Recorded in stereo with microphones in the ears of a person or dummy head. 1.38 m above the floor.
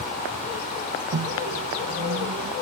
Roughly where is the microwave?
Right.